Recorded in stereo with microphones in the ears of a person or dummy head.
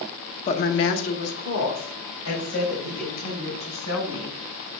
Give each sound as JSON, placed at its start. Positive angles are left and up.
{"t": 0.5, "sound": "a woman speaking", "side_deg": 40, "distance_m": 1.1}